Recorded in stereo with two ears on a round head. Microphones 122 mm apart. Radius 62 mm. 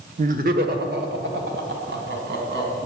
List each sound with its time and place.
0.2 s laughter: 55° right (ahead or behind), 0.9 m; by 2.8 s 80° right, 4.5 m